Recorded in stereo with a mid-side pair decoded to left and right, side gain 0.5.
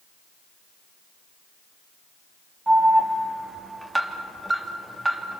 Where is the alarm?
15° right, 3 m.